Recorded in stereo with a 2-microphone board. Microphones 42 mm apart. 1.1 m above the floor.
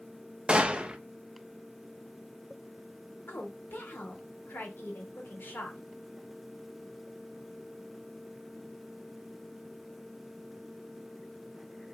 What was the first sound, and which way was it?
A gunshot, 25° right (ahead or behind).